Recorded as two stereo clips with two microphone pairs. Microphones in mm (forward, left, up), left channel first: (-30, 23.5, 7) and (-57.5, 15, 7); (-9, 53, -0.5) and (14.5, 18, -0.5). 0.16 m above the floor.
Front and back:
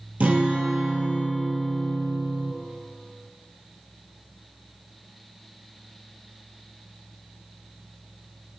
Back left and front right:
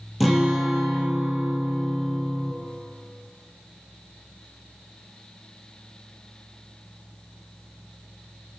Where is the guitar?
145° right, 1.2 m.